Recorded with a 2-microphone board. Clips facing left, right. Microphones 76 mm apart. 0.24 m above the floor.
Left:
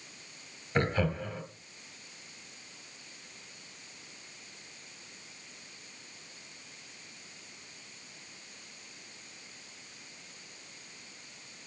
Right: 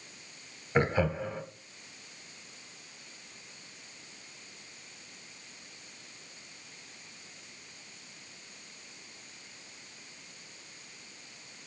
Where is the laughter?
15° right (ahead or behind), 1.8 m.